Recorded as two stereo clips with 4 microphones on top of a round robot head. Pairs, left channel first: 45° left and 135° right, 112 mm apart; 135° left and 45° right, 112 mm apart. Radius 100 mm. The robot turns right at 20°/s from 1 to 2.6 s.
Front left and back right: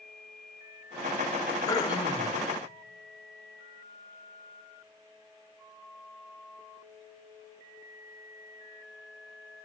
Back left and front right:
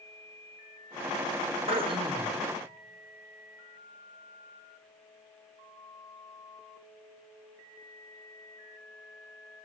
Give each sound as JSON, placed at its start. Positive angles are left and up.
{"t": 1.7, "sound": "throat clearing", "azimuth_deg": -15, "distance_m": 2.0}